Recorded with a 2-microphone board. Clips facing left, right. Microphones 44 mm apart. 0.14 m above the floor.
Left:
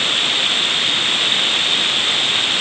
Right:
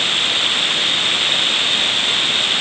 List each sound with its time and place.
Only background noise.